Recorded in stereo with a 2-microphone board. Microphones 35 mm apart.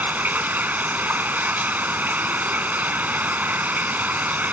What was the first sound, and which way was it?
Running water, 70° right (ahead or behind).